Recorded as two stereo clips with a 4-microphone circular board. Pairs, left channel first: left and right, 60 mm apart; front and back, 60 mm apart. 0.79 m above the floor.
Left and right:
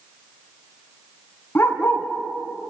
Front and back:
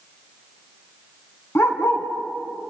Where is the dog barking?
40° left, 2.5 m.